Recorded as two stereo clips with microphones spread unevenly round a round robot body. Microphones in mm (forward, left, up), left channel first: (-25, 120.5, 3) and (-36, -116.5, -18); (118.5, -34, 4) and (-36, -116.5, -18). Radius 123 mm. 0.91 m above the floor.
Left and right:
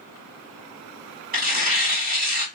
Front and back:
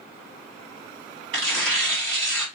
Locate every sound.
1.3 s tearing paper: 150° right, 1.9 m